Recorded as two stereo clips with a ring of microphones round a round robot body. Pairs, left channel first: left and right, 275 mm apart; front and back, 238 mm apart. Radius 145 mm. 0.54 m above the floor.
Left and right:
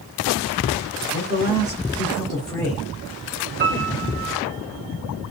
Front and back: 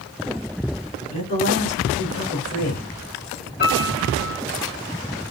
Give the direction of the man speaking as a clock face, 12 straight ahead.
1 o'clock.